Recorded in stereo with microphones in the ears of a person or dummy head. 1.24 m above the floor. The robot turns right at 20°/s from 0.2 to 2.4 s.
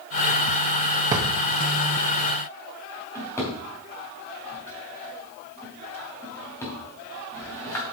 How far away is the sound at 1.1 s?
About 0.6 m.